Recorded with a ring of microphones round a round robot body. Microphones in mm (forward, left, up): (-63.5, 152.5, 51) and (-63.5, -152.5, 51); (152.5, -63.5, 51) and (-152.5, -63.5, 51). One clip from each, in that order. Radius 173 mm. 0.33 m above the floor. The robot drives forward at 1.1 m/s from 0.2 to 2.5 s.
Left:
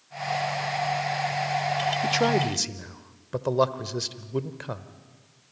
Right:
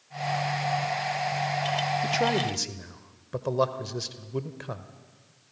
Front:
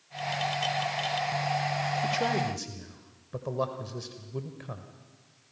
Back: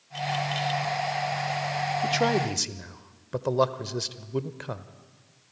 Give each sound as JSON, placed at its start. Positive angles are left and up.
{"t": 2.0, "sound": "a man speaking", "azimuth_deg": 125, "distance_m": 0.8}